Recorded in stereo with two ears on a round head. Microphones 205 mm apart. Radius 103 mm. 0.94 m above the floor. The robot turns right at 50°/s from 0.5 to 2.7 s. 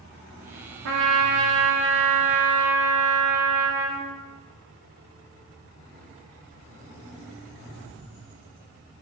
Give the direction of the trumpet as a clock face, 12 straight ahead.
4 o'clock.